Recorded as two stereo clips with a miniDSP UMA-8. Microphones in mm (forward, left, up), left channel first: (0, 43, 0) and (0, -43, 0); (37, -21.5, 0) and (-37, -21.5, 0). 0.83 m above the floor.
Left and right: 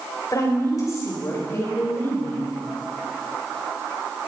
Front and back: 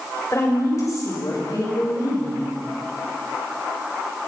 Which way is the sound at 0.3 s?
45° left.